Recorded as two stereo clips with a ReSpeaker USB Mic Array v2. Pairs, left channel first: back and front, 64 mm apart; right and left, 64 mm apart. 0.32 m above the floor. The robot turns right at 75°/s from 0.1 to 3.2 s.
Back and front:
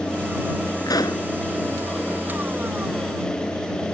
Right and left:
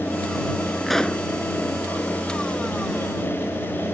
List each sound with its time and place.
0.8 s a pop: 175° left; by 1.2 s 155° right